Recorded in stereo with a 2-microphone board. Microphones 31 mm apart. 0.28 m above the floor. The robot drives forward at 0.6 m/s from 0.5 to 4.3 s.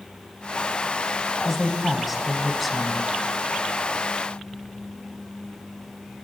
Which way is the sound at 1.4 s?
5° right (ahead or behind).